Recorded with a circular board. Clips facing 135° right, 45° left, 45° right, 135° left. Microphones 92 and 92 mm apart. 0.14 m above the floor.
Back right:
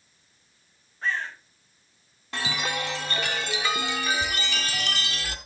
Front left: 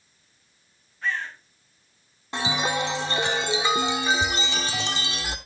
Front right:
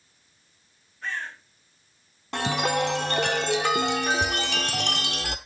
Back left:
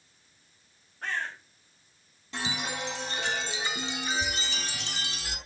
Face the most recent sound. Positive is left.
turn(degrees=-25)